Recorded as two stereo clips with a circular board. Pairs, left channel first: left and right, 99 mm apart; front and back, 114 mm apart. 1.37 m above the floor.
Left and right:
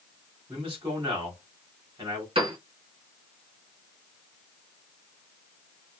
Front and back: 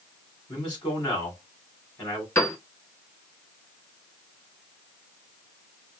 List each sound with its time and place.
0.5 s a man speaking: 55° right, 4 m
2.4 s a piano: 65° right, 2 m